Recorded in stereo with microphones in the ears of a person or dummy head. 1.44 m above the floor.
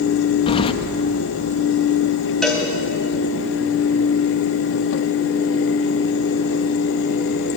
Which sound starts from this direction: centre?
A cowbell, at 2.4 s.